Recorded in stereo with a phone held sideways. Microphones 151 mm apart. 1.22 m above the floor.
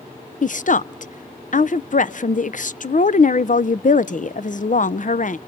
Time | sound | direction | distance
0.4 | a woman speaking | 55° left (ahead or behind) | 0.5 m